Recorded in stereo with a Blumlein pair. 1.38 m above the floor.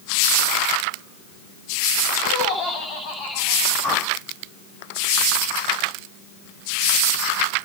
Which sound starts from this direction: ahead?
A whoosh, at 3.8 s.